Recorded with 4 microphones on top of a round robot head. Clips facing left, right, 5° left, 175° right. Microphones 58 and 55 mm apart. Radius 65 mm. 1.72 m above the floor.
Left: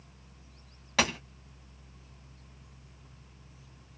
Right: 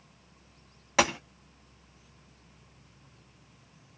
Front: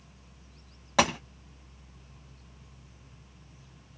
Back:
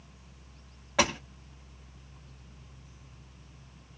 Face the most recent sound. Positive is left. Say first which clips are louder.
# right 3 dB, front 2 dB
turn(degrees=-20)